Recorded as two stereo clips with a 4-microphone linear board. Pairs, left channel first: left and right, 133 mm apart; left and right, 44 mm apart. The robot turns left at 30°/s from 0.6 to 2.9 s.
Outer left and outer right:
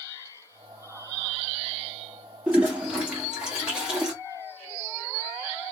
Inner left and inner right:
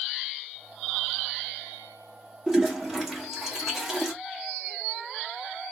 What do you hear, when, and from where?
2.5 s a toilet flushing: 15° right (ahead or behind), 1.3 m; by 4.1 s 5° right (ahead or behind), 1.3 m